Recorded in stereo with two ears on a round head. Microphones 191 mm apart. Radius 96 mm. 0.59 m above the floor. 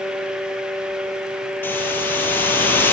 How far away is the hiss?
About 7.5 m.